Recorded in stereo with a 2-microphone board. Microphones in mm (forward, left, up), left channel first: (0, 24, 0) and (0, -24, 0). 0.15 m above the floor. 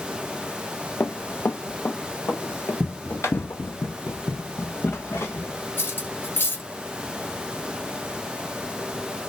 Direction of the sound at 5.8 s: 55° left (ahead or behind).